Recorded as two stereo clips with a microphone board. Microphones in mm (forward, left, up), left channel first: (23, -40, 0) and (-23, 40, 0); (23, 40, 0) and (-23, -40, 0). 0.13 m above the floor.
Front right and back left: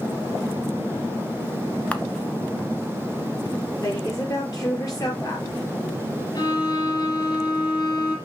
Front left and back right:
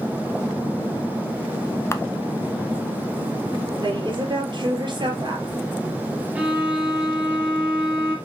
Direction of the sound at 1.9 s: 10° left.